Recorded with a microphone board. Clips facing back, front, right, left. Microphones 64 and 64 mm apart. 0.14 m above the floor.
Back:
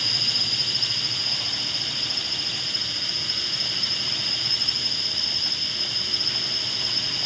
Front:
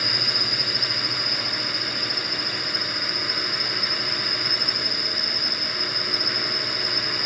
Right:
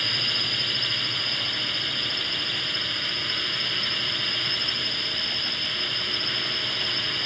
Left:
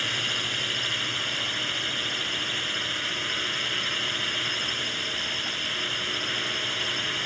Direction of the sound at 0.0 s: 10° left.